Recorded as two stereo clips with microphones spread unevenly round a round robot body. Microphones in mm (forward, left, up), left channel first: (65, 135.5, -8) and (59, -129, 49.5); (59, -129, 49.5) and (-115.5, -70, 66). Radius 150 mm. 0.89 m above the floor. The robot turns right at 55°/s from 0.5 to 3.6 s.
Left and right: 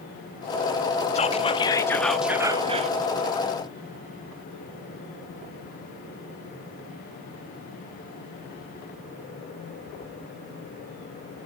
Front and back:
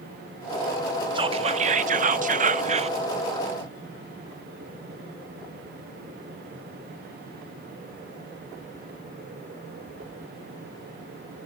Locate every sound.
1.1 s whispering: 105° left, 0.8 m; by 3.0 s 155° right, 0.8 m